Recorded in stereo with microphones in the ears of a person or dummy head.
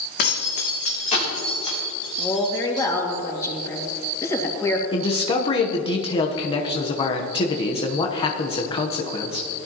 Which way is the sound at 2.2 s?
15° left (ahead or behind).